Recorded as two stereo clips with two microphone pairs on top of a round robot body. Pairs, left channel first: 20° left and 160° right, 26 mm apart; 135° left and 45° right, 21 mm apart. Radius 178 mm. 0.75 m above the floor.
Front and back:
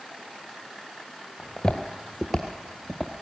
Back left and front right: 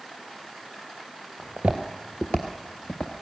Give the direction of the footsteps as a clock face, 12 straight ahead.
2 o'clock.